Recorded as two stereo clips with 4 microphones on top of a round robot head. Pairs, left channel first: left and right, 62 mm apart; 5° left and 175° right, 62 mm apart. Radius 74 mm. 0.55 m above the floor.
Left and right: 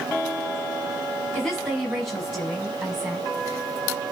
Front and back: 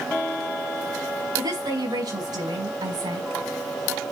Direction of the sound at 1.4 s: 175° left.